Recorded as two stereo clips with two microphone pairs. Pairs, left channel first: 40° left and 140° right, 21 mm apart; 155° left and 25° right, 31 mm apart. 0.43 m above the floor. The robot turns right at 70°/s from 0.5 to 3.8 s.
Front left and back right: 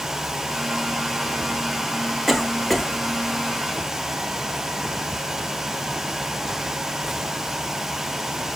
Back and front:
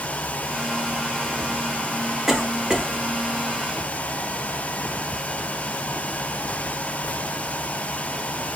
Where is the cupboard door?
No cupboard door in this recording.